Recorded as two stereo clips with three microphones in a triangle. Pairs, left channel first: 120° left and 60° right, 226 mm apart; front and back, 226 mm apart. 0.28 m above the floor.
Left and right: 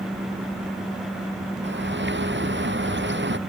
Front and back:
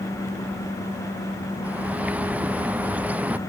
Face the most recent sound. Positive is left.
turn(degrees=-95)